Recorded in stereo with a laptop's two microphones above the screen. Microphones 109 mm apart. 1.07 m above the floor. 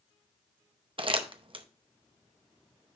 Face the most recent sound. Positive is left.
turn(degrees=-50)  # may be behind; listen again after turning